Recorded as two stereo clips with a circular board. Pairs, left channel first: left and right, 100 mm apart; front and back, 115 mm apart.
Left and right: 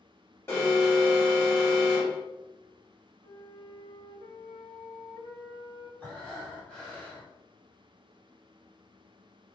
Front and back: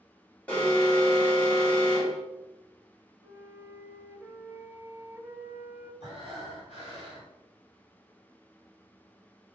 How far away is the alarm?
About 1.8 m.